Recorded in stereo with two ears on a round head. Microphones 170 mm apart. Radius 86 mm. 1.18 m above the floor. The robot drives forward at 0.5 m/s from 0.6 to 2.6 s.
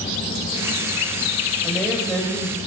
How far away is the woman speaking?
About 7 m.